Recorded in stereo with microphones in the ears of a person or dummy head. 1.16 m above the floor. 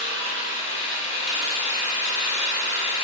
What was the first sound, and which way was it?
An engine running, 40° left (ahead or behind).